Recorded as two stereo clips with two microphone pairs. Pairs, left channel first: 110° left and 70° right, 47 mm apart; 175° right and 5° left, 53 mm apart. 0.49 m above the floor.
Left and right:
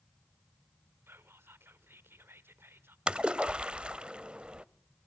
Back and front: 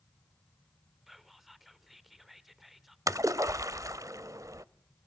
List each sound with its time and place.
1.1 s whispering: 80° right, 1.3 m
3.1 s a splash: straight ahead, 0.6 m